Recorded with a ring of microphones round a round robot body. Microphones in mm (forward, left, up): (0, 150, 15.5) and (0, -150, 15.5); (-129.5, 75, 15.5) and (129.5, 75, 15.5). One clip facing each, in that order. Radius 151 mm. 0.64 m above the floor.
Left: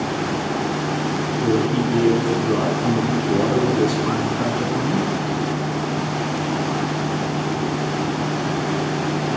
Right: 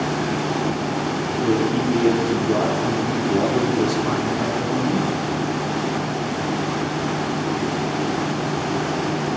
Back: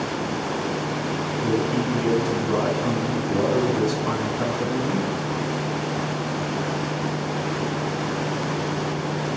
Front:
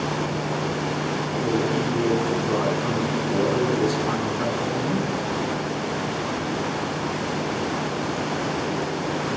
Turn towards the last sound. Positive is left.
turn(degrees=175)